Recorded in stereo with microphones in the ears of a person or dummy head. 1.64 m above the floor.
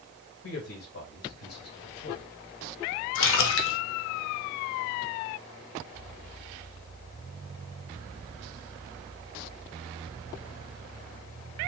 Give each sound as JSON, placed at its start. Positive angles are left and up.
{"t": 0.4, "sound": "a man speaking", "side_deg": 75, "distance_m": 1.6}
{"t": 3.1, "sound": "a splash", "side_deg": 70, "distance_m": 0.6}